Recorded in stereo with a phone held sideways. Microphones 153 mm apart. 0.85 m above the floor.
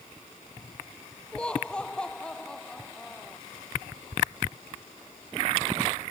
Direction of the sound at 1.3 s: 10° left (ahead or behind).